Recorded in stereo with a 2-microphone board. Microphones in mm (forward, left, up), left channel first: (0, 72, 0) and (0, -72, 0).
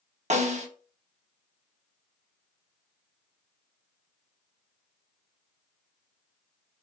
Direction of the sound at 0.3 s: 55° right (ahead or behind).